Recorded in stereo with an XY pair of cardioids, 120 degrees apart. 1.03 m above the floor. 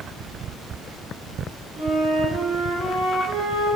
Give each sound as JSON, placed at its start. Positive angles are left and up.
{"t": 1.8, "sound": "a flute", "azimuth_deg": -70, "distance_m": 1.5}